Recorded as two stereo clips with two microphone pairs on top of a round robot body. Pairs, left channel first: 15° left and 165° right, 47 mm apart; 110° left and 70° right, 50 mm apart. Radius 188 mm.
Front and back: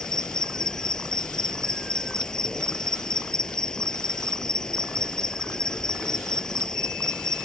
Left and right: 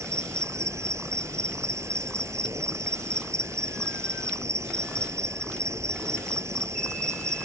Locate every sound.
0.0 s an insect: 60° right